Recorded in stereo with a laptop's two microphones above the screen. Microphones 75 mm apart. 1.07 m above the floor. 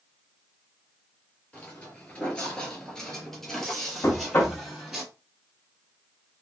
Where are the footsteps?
15° left (ahead or behind), 1.1 m; by 5.0 s 5° right (ahead or behind), 1.7 m.